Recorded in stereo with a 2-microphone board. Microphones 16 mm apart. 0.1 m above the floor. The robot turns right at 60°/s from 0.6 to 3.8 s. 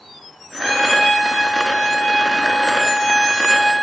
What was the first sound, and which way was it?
A trumpet, 55° left.